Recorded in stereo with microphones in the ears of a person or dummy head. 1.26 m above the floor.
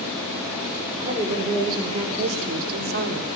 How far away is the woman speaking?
About 4 m.